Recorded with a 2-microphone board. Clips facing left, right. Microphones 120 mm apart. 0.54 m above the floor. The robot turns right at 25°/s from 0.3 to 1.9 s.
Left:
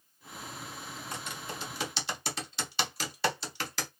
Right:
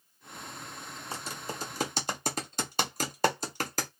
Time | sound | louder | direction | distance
1.1 | typing on a keyboard | right 3 dB | 30° right (ahead or behind) | 0.7 m